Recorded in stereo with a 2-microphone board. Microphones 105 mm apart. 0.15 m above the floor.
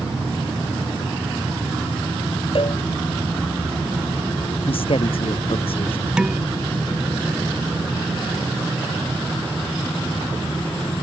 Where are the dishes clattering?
5° right (ahead or behind).